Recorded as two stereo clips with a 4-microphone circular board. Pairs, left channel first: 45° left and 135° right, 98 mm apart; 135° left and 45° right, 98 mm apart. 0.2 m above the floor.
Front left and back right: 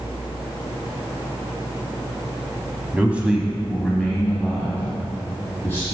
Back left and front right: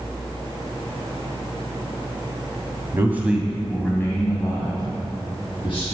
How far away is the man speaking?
About 1.4 m.